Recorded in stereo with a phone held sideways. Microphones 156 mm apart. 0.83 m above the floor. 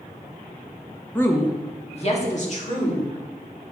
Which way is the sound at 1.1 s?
10° left (ahead or behind).